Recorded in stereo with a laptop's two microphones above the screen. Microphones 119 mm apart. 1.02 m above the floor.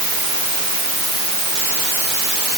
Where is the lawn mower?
I don't hear a lawn mower.